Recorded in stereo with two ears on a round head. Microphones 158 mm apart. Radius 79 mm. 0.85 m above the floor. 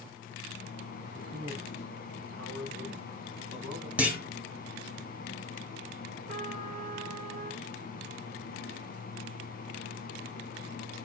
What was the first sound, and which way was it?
A man speaking, 80° right.